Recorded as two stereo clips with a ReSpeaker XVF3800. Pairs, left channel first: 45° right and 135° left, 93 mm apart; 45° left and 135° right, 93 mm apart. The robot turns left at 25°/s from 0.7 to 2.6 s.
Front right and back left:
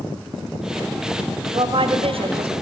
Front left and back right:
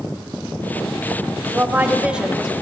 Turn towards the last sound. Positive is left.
turn(degrees=135)